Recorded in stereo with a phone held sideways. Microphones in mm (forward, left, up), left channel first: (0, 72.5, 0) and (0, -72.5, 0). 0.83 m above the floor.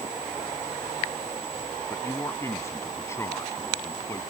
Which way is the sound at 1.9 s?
20° left (ahead or behind).